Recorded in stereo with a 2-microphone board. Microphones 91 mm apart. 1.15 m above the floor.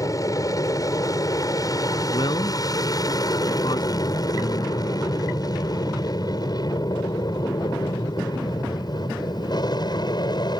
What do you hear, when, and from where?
0.0 s an aircraft: 40° left (ahead or behind); by 10.6 s 50° left (ahead or behind)
2.1 s a man speaking: 55° left (ahead or behind)